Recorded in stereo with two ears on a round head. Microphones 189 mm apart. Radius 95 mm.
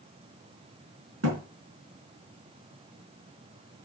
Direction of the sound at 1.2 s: 65° right (ahead or behind).